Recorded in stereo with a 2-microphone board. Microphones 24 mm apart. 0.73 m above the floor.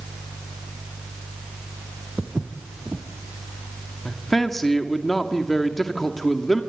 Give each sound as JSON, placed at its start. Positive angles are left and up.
{"t": 2.2, "sound": "footsteps", "side_deg": -75, "distance_m": 3.0}
{"t": 4.0, "sound": "a man speaking", "side_deg": 10, "distance_m": 1.8}